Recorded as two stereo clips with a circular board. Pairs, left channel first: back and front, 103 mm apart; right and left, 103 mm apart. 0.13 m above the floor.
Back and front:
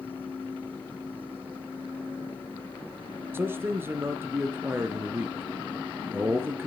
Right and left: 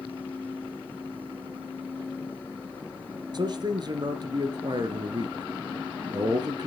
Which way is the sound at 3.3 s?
60° left.